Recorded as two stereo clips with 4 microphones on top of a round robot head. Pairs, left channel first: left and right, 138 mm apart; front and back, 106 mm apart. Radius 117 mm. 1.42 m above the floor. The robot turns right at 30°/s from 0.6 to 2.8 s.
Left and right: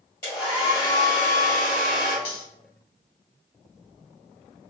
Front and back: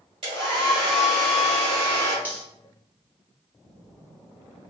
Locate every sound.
0.2 s a hair dryer: 160° left, 1.6 m; by 2.1 s 150° right, 1.6 m
2.2 s cutlery clinking: 110° left, 1.1 m; by 2.4 s 115° left, 1.1 m